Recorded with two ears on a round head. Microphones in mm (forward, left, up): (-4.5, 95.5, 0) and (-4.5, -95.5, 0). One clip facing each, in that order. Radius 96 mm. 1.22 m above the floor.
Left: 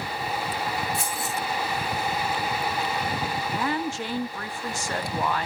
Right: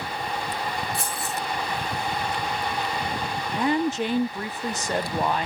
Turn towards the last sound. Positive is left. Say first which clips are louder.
# right 7 dB
turn(degrees=-15)  # may be behind; listen again after turning